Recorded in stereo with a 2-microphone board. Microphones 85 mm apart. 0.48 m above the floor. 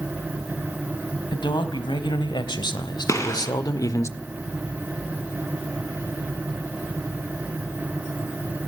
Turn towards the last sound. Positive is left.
turn(degrees=40)  # may be behind; listen again after turning